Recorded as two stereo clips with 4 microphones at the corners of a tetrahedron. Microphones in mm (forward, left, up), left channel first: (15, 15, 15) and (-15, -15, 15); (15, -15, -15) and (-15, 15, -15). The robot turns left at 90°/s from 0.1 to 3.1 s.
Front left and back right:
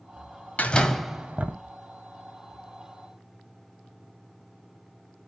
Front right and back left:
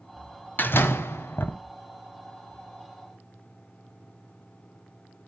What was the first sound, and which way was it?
A door slam, 5° right.